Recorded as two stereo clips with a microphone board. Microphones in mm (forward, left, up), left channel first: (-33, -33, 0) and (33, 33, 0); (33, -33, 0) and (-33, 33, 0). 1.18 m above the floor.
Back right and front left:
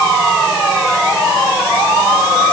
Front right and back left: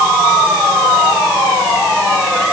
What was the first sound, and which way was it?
Only background noise.